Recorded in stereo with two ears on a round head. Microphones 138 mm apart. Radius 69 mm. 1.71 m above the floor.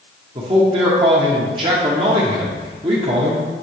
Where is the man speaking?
30° right (ahead or behind), 0.7 m.